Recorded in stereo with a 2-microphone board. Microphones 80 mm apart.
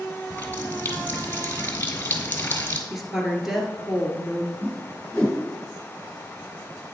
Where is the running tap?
25° left (ahead or behind), 1.1 m.